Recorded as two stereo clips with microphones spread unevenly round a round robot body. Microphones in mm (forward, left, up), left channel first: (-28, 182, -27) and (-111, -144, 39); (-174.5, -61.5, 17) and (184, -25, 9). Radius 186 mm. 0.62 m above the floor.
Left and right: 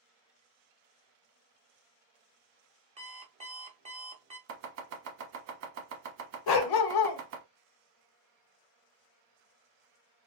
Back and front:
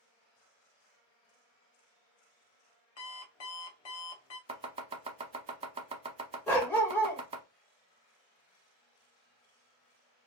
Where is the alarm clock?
Straight behind, 1.0 m.